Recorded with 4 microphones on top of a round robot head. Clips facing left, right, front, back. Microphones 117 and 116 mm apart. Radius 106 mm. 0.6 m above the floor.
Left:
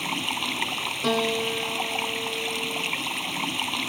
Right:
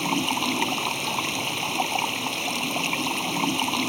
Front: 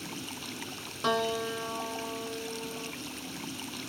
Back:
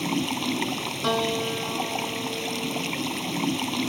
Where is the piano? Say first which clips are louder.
Left 5 dB, back 3 dB; 105° left.